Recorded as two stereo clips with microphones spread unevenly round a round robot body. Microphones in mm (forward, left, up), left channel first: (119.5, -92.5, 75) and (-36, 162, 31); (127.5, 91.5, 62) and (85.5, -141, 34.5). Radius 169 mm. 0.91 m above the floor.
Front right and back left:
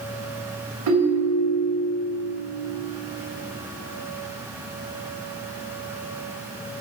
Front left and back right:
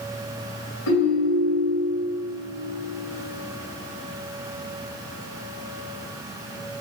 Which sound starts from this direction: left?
A ringtone, at 0.9 s.